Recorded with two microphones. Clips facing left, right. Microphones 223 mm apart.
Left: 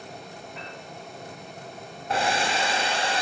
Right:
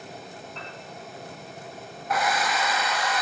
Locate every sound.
0.6 s a piano: 10° left (ahead or behind), 3.5 m
2.1 s a hair dryer: 30° left (ahead or behind), 0.6 m